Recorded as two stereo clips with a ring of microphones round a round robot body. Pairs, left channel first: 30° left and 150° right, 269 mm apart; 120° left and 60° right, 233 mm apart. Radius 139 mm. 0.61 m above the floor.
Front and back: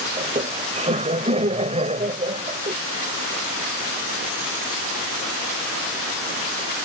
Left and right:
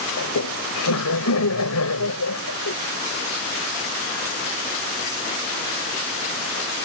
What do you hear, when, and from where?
0.2 s laughter: 140° left